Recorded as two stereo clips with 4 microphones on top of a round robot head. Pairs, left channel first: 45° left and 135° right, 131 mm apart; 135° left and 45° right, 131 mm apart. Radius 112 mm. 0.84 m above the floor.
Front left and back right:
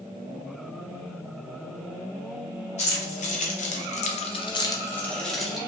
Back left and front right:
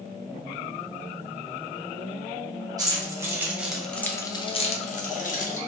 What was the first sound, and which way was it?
Keys jangling, 15° left.